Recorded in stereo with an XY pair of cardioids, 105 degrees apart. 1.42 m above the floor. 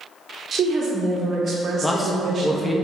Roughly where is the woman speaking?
Ahead right.